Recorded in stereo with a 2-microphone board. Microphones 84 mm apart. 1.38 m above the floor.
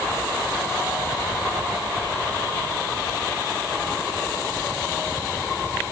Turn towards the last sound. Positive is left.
No sound to turn to.